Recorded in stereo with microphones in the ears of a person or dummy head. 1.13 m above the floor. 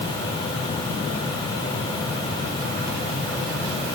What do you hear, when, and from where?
Only background noise.